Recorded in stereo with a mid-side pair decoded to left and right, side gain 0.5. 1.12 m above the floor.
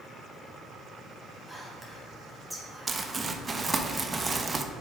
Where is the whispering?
5° right, 2 m.